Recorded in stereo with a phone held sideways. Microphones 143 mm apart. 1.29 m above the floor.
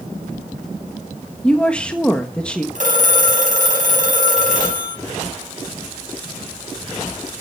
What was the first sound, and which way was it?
A woman speaking, 5° left (ahead or behind).